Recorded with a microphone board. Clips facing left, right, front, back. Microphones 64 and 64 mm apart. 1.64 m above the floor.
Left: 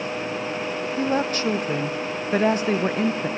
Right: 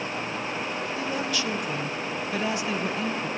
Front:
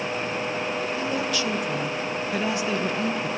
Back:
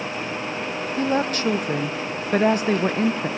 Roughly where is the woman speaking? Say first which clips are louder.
Left 8 dB, back 4 dB; behind left.